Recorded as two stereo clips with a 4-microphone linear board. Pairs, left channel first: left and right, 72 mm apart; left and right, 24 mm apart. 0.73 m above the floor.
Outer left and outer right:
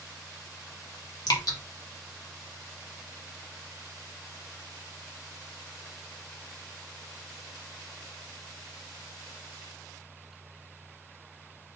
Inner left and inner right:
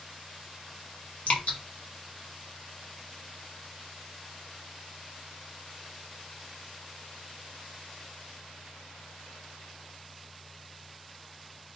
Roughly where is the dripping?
Left.